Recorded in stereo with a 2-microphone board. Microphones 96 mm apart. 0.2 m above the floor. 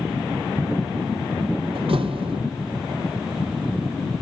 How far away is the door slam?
About 4 m.